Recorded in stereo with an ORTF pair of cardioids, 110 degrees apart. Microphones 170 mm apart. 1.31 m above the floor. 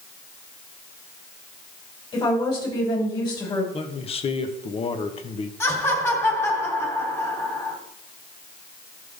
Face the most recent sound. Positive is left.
turn(degrees=15)